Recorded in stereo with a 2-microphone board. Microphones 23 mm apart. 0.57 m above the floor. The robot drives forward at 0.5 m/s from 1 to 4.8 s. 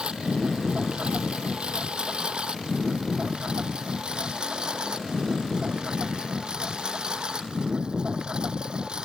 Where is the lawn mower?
55° right (ahead or behind); by 9.1 s 40° right (ahead or behind).